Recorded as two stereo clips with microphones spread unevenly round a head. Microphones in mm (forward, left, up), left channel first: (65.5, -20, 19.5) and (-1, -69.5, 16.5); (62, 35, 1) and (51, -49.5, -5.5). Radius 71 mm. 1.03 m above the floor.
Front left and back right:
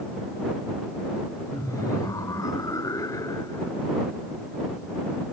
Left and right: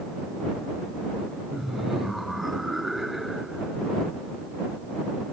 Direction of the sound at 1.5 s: 10° right.